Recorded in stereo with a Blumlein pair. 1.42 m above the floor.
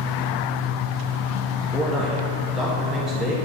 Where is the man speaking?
Straight ahead, 1.6 m.